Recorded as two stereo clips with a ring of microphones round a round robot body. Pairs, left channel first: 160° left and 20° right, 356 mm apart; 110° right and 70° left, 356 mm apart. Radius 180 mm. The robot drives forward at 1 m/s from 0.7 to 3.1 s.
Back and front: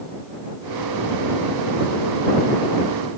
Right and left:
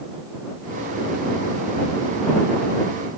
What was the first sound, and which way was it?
Only background noise.